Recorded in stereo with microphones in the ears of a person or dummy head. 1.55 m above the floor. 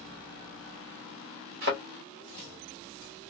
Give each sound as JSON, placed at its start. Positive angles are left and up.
{"t": 1.6, "sound": "a thud", "side_deg": -45, "distance_m": 1.2}